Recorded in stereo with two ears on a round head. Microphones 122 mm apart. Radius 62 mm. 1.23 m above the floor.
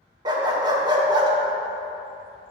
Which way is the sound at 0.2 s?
30° right (ahead or behind).